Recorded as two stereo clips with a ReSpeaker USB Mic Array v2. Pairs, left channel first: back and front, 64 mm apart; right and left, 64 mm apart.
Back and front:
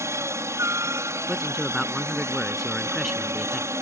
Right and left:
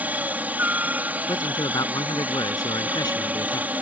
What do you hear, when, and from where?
0.0 s a helicopter: 30° left
1.3 s a man speaking: 90° right